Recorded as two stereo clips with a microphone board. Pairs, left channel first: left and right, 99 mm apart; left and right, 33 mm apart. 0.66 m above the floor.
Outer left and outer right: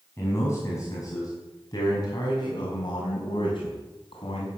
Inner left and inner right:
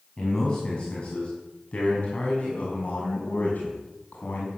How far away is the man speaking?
About 5.5 m.